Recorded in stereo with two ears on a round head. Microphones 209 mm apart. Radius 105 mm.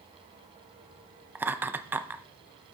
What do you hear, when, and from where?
1.4 s laughter: 10° right (ahead or behind), 0.6 m